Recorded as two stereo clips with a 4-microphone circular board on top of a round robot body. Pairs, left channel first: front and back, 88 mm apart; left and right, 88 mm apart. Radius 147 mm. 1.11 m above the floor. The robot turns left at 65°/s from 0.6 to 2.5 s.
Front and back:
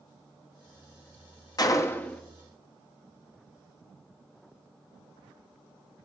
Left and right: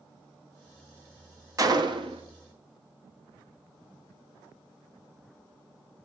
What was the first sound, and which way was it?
A gunshot, 40° right.